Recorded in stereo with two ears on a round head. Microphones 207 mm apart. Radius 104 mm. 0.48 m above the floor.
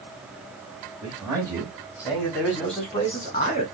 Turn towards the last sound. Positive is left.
turn(degrees=25)  # may be behind; listen again after turning